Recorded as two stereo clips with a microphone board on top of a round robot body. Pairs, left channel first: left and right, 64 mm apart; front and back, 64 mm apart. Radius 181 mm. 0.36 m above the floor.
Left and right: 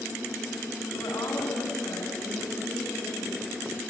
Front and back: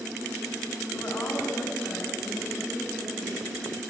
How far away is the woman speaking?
About 4 m.